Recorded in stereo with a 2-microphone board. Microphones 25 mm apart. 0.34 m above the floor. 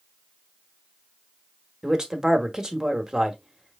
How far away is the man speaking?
About 1.2 m.